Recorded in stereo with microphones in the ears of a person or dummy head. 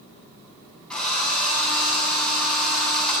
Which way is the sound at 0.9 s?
5° left (ahead or behind).